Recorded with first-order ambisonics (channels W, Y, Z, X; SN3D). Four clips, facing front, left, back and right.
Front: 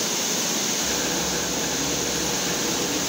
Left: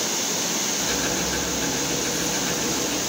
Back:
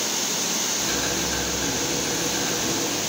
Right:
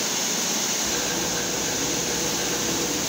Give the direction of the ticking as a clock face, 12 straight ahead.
7 o'clock.